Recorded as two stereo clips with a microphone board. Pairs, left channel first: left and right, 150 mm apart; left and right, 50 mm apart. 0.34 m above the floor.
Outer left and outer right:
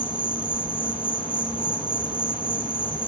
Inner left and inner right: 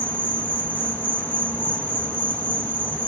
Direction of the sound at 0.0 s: 35° left (ahead or behind).